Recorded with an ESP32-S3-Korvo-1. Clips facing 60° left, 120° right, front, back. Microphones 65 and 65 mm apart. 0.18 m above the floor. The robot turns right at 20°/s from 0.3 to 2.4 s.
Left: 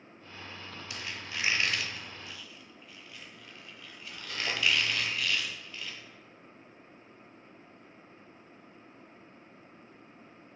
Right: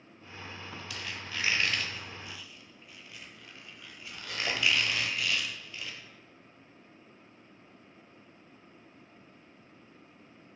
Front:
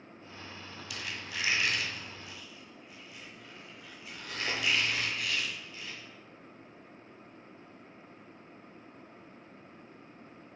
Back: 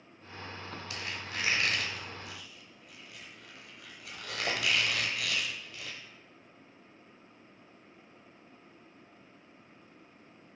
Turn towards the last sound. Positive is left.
turn(degrees=155)